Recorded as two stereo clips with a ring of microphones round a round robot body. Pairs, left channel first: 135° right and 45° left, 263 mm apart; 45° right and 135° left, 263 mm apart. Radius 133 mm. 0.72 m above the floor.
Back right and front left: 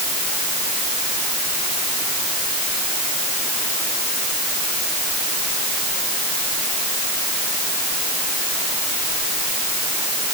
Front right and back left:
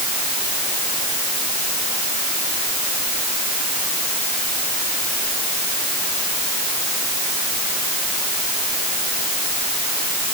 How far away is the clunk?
No clunk in this recording.